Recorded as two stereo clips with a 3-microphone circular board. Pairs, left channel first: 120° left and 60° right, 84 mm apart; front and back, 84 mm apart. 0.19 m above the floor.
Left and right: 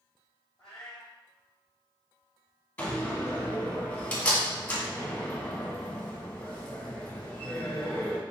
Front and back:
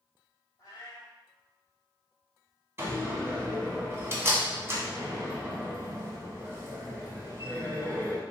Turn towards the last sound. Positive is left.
turn(degrees=165)